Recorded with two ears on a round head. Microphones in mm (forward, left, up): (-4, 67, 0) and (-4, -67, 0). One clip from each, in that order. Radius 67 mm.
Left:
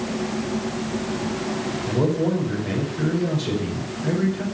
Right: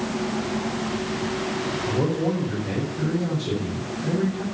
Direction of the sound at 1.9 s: 40° left (ahead or behind).